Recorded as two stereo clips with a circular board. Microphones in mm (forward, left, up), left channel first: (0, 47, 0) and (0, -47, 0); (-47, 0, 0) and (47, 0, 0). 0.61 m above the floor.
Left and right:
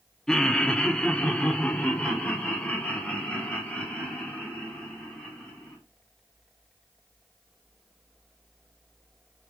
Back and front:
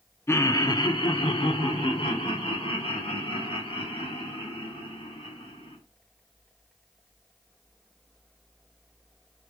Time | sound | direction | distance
0.3 | laughter | 165° left | 0.7 m